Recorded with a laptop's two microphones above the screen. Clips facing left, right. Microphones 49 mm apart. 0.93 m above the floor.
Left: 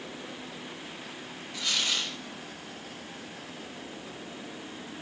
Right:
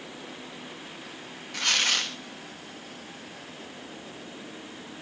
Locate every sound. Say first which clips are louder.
1.5 s tearing paper: right 5 dB; 65° right (ahead or behind), 1.1 m